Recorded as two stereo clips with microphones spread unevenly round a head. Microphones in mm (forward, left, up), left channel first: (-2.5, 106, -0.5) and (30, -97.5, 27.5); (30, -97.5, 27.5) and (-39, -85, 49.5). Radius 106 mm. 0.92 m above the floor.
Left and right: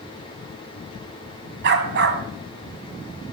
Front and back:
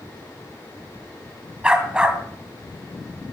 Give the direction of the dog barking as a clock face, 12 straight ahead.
4 o'clock.